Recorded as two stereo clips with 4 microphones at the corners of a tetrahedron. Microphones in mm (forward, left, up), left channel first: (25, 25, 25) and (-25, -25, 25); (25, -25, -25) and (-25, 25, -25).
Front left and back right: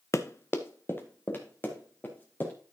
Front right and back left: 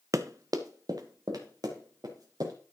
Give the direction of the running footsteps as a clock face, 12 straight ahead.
9 o'clock.